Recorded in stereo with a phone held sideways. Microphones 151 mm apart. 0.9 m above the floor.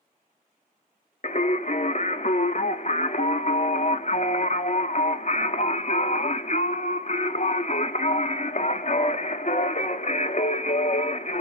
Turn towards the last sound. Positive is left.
turn(degrees=50)  # may be behind; listen again after turning